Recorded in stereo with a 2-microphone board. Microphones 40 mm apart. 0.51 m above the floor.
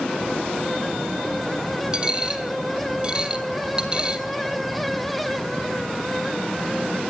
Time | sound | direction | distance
1.9 | a dropped coin | 25° right (ahead or behind) | 1.2 m